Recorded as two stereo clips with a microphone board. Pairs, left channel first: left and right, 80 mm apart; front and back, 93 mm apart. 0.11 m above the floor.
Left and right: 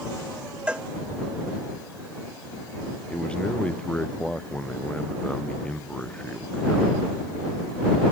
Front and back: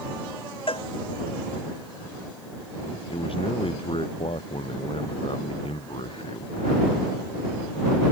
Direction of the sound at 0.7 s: 15° right.